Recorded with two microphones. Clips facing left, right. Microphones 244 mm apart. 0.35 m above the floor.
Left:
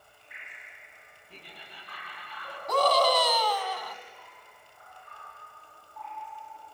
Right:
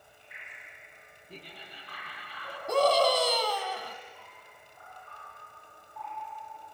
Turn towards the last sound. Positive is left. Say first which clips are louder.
# right 1 dB
turn(degrees=-30)  # may be behind; listen again after turning